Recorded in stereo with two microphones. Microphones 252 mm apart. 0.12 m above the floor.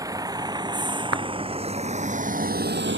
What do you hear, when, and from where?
0.0 s a vehicle: 15° right (ahead or behind); by 3.0 s 50° right (ahead or behind)
1.1 s a clap: 85° right